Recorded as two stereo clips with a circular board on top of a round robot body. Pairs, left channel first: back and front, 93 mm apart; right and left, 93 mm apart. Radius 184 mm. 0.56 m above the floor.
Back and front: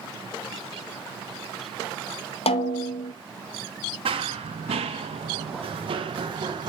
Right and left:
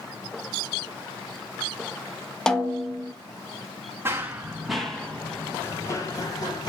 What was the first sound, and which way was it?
A snare drum, 175° right.